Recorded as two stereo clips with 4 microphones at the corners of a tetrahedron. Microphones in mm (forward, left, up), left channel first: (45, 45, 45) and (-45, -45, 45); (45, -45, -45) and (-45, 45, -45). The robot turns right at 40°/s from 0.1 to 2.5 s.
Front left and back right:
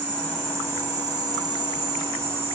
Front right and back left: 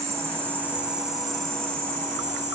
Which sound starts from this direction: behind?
An insect, at 0.0 s.